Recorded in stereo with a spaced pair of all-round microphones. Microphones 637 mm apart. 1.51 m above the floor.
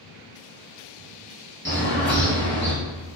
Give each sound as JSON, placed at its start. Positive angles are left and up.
{"t": 1.6, "sound": "a bird", "side_deg": -20, "distance_m": 1.0}